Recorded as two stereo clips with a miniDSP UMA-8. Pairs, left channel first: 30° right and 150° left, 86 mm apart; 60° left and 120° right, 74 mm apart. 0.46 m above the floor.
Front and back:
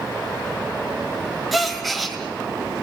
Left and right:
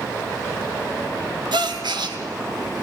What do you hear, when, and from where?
1.5 s a gasp: 120° right, 1.9 m